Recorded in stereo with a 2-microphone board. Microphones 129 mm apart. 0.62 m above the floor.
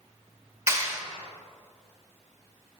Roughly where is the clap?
Right.